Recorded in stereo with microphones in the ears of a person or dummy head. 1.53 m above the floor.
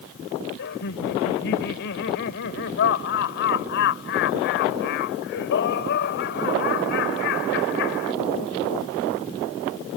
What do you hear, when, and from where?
0.6 s laughter: 65° left (ahead or behind)